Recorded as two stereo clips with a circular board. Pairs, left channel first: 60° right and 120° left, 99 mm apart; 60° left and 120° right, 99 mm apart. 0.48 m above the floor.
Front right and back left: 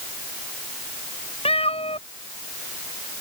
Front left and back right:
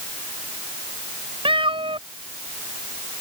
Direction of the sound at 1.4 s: 85° right.